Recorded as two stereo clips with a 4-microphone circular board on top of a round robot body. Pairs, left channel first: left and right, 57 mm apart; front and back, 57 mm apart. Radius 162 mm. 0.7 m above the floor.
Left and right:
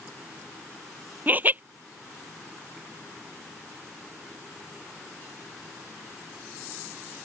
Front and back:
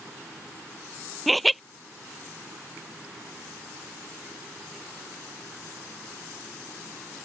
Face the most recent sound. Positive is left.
turn(degrees=-90)